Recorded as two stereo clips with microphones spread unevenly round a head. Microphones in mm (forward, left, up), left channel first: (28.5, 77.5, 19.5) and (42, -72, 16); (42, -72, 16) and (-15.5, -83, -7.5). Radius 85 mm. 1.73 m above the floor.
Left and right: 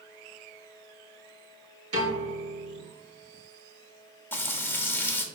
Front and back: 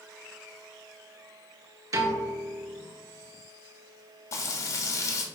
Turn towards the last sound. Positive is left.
turn(degrees=20)